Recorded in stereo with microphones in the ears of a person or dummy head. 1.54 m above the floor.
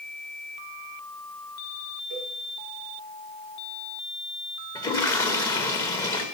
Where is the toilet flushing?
20° left (ahead or behind), 1.1 m.